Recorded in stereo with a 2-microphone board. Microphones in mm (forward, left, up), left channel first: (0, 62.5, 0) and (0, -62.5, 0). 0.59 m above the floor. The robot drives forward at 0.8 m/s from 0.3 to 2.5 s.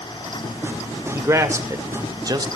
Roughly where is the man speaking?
Right.